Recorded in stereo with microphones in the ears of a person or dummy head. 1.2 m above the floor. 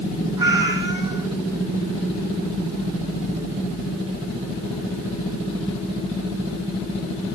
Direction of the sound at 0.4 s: 20° right (ahead or behind).